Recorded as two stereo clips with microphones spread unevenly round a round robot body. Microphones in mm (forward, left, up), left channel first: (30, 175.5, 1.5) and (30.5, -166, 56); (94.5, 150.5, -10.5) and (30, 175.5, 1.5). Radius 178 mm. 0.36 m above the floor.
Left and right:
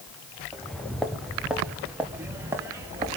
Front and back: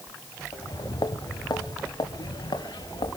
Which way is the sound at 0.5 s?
5° left.